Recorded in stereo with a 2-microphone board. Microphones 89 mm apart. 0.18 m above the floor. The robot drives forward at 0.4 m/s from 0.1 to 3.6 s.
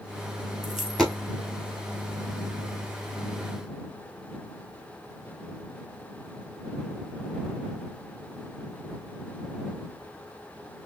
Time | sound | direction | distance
0.6 | a dropped coin | centre (ahead or behind) | 1.7 m